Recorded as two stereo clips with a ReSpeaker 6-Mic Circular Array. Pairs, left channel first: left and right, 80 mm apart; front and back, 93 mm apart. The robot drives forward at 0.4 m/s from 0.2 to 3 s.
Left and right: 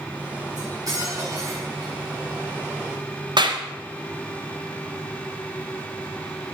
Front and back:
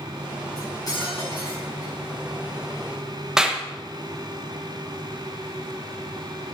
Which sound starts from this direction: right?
A clap, at 3.4 s.